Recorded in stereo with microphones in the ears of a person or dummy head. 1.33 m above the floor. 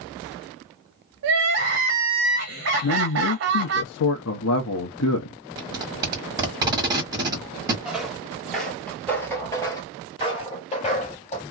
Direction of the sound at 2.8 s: 75° left (ahead or behind).